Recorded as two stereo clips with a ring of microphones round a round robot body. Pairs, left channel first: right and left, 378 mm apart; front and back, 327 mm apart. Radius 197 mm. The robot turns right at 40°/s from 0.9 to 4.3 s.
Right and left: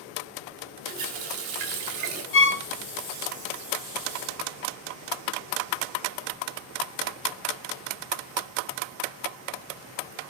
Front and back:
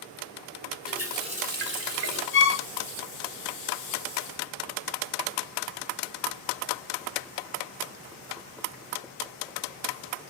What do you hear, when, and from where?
0.9 s a running tap: 90° left, 2.5 m; by 2.2 s 145° left, 2.5 m
2.3 s a violin: 45° right, 1.4 m; by 2.6 s 30° right, 1.4 m